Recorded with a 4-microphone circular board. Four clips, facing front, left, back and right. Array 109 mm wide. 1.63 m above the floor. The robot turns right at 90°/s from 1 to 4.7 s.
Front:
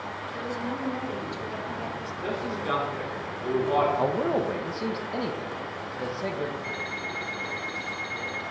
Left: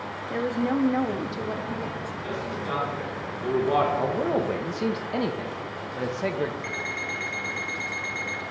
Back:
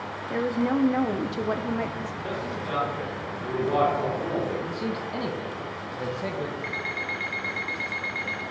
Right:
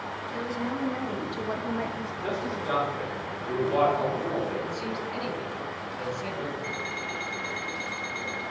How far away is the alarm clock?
About 1.3 m.